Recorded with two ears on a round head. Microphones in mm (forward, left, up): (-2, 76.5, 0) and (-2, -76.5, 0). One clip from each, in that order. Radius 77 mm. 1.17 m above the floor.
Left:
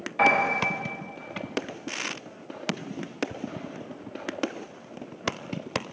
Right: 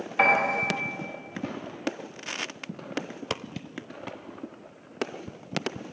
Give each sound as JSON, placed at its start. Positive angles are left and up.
{"t": 0.2, "sound": "a piano", "side_deg": -25, "distance_m": 1.1}